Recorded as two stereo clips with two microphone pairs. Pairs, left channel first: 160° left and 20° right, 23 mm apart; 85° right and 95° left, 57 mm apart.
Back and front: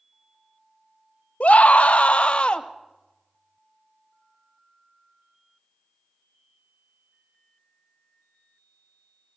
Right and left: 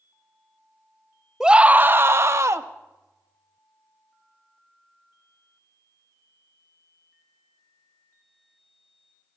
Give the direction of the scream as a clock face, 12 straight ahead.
6 o'clock.